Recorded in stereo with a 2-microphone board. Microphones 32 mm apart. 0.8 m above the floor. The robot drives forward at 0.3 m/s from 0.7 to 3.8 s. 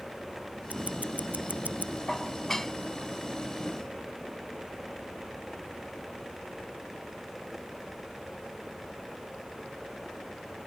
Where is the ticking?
50° right (ahead or behind); by 2.0 s 55° right (ahead or behind).